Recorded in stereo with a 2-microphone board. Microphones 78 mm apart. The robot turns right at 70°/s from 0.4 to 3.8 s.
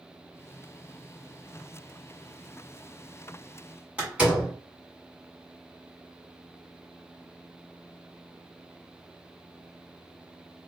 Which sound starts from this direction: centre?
A door slam, at 4.0 s.